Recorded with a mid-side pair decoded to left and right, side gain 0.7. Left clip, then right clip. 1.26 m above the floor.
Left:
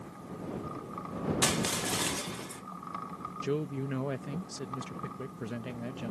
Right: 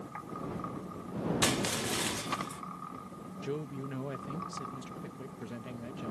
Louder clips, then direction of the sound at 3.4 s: Left 4 dB; 25° left.